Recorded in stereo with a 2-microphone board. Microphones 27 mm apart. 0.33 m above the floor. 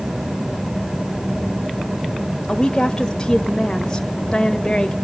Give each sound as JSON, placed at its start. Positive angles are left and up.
{"t": 2.5, "sound": "a woman speaking", "side_deg": 20, "distance_m": 1.3}